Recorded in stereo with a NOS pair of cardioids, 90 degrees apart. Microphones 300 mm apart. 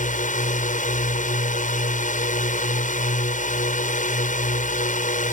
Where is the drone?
25° left.